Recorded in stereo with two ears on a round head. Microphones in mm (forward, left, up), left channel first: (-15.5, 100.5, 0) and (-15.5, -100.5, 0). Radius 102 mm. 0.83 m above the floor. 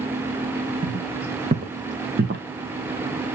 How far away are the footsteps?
About 2.5 m.